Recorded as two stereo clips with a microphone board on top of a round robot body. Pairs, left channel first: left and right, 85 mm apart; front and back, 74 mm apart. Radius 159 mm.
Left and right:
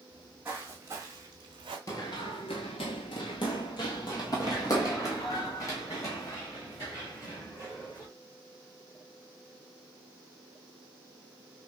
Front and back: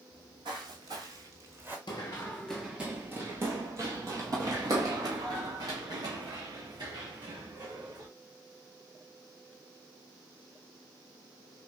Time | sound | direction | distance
0.1 | footsteps | 170° right | 1.4 m
1.9 | running footsteps | 35° left | 0.5 m